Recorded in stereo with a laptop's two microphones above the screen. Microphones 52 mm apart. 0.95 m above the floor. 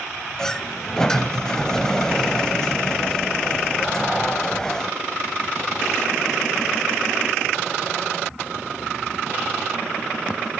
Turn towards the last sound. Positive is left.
turn(degrees=10)  # may be behind; listen again after turning